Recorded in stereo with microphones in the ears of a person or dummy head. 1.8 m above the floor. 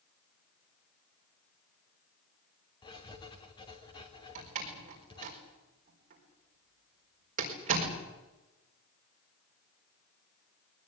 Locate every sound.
2.8 s writing: 25° left (ahead or behind), 3 m
4.3 s a door slam: 45° right (ahead or behind), 4.5 m